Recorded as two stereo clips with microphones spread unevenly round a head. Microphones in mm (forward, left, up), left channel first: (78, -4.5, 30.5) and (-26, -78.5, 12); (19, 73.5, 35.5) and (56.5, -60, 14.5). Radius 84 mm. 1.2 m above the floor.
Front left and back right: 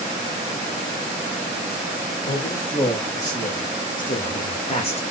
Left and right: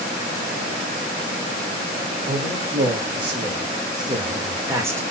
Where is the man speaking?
30° right, 3 m; by 5.0 s straight ahead, 2.0 m.